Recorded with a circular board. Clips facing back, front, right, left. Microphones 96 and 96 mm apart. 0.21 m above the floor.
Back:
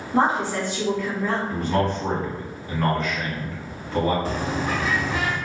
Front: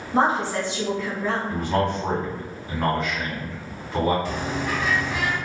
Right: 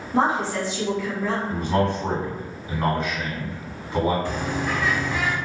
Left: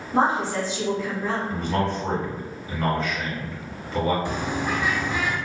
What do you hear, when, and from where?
0.1 s a woman speaking: 55° left, 1.6 m
1.5 s a man speaking: 55° right, 1.3 m
4.2 s a bird: 155° left, 0.5 m